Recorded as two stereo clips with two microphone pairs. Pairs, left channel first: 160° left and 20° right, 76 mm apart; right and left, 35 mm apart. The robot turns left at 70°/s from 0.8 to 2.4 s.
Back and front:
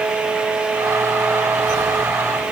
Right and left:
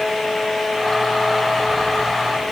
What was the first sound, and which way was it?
Only background noise.